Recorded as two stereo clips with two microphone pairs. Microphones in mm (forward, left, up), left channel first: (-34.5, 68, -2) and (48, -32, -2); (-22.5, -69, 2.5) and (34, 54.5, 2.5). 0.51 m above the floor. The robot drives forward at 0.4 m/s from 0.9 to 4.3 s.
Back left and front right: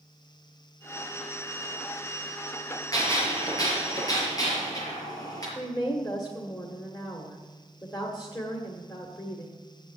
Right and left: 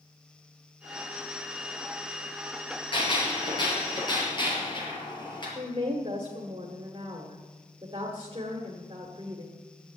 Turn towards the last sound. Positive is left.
turn(degrees=85)